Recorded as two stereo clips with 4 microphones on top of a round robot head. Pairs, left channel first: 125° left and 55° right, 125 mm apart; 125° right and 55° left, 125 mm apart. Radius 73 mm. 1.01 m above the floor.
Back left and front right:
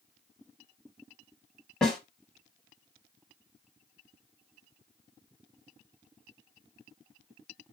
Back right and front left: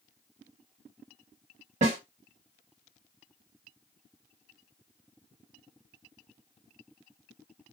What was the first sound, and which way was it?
A snare drum, 45° left.